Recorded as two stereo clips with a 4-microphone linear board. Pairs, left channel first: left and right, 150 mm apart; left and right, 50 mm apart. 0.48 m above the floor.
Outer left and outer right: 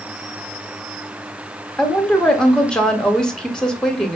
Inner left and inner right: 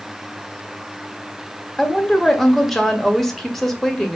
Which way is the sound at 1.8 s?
5° left (ahead or behind).